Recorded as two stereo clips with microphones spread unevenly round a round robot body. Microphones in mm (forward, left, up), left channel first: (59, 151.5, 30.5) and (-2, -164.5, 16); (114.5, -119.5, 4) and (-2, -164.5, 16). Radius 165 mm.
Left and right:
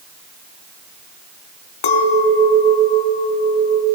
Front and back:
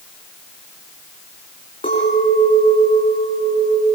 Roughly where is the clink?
Left.